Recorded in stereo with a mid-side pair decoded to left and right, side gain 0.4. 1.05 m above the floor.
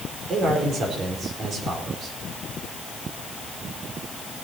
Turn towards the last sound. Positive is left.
turn(degrees=-65)